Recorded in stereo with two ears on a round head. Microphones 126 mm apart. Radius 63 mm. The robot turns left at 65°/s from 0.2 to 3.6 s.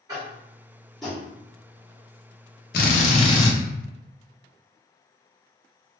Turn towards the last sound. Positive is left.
turn(degrees=15)